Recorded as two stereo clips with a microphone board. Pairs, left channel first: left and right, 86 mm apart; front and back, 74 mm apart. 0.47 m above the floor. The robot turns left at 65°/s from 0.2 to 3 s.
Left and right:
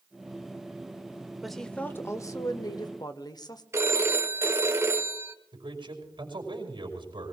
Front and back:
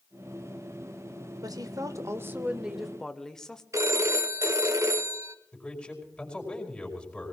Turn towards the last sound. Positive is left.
turn(degrees=-75)